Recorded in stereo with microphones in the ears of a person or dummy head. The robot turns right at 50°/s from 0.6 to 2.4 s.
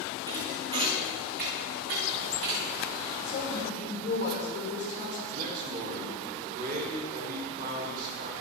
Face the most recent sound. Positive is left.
turn(degrees=-45)  # may be behind; listen again after turning